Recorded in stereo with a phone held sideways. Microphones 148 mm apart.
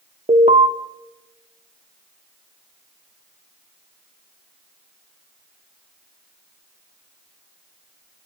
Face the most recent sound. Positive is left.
turn(degrees=-45)  # may be behind; listen again after turning